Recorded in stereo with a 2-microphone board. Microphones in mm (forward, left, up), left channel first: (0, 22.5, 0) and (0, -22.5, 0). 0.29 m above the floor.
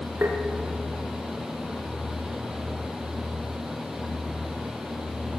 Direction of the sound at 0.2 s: 50° right (ahead or behind).